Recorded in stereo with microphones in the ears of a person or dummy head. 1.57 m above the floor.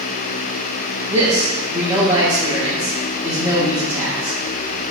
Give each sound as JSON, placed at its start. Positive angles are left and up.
{"t": 1.1, "sound": "a man speaking", "side_deg": -15, "distance_m": 1.5}